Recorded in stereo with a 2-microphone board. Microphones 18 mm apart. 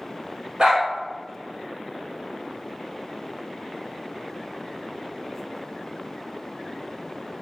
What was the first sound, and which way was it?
A dog barking, 50° right (ahead or behind).